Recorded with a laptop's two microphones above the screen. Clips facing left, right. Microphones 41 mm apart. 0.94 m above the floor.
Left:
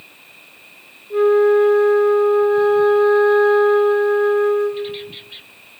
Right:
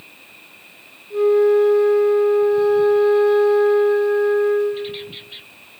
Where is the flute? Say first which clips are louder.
Left 1 dB; 45° left (ahead or behind), 0.5 m.